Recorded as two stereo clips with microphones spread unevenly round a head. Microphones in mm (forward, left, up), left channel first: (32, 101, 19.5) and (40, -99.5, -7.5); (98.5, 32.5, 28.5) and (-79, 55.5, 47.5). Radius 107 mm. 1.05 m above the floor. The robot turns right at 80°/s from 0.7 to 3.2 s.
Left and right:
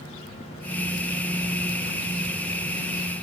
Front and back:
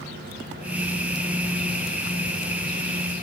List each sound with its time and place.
Only background noise.